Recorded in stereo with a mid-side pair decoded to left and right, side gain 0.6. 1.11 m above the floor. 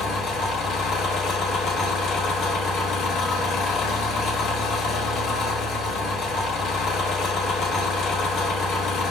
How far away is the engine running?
About 1.3 m.